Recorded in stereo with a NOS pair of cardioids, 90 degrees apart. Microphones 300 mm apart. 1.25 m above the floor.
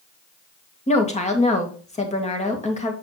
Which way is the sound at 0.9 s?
20° left.